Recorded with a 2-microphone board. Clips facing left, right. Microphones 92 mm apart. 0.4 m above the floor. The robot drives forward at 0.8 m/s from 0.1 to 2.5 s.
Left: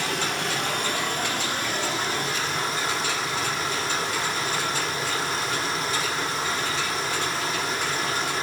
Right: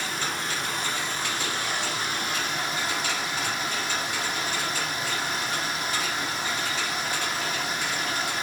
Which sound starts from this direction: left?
Running water, at 0.0 s.